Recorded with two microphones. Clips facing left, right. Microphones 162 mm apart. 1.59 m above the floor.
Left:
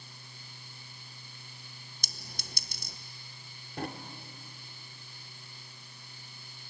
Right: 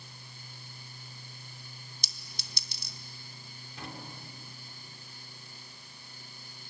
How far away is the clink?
About 1.0 m.